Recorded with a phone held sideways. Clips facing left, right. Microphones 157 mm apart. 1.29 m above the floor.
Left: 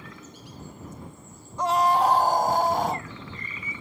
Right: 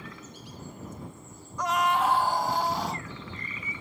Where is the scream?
30° left (ahead or behind); by 3.1 s 55° left (ahead or behind).